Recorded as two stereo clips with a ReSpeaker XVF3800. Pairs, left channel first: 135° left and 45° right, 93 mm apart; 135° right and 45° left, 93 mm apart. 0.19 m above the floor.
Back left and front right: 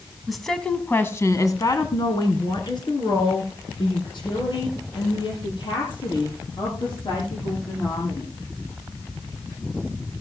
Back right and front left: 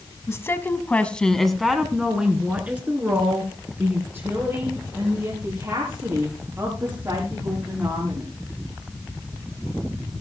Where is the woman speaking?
130° right, 1.4 m; by 8.3 s 105° left, 8 m.